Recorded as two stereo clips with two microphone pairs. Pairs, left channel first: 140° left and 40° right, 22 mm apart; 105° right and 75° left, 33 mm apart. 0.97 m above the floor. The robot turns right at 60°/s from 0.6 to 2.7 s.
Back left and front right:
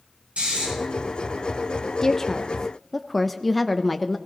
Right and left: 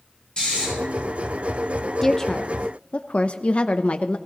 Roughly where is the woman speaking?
Behind.